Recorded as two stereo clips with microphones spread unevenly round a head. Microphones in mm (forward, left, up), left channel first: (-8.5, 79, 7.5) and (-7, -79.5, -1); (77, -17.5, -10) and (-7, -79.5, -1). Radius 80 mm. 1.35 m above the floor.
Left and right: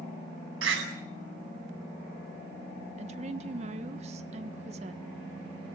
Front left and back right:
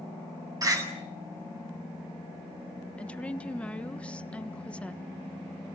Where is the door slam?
90° right, 7.5 m.